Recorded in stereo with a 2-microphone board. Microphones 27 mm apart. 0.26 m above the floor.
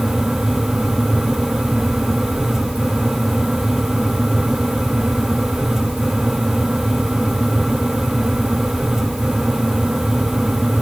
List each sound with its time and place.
Only background noise.